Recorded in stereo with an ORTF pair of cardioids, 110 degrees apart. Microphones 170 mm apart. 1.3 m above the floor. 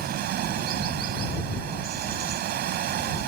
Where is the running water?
65° right.